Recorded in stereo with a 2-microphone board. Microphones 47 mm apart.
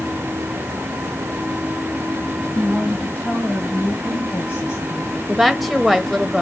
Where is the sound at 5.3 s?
Centre (ahead or behind), 1.1 m.